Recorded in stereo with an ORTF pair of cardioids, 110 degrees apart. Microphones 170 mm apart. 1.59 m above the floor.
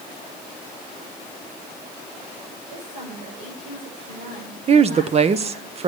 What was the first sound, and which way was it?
A woman speaking, 45° right.